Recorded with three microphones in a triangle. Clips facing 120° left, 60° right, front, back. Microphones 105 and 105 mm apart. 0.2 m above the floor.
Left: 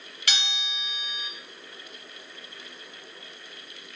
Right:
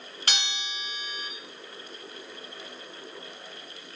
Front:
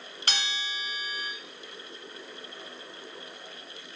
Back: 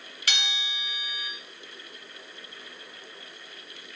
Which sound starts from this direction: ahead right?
A bell, at 0.3 s.